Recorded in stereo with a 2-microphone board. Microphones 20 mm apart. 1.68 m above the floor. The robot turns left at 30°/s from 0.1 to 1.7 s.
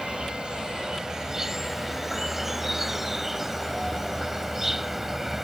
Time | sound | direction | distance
0.0 | an insect | 115° right | ?